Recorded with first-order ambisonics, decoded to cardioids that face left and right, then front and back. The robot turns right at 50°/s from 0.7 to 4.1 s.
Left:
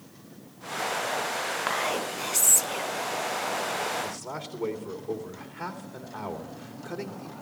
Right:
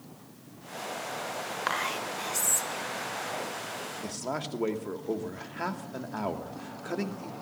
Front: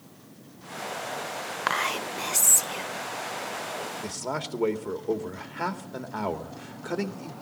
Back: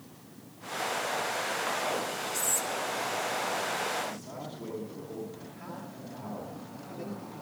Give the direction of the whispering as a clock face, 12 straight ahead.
12 o'clock.